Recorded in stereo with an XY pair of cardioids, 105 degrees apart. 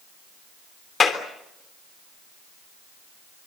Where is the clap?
35° left, 3.5 m.